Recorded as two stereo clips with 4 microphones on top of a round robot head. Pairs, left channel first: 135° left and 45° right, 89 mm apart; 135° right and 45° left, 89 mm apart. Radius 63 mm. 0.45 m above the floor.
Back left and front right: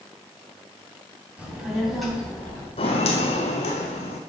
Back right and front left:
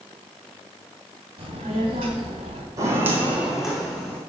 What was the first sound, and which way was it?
A child speaking, 30° left.